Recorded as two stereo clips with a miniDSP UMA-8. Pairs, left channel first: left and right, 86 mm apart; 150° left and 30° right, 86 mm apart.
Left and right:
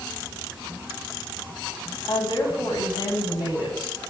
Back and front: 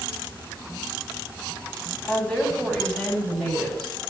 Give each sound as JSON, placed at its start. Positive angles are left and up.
{"t": 2.0, "sound": "a woman speaking", "azimuth_deg": 70, "distance_m": 4.0}